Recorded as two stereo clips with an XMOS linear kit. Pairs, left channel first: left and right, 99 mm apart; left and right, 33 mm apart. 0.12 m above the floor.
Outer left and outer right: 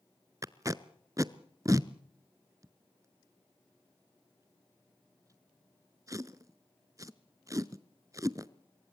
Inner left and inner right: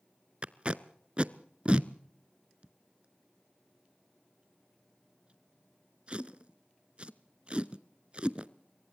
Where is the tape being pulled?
35° right (ahead or behind), 0.7 m.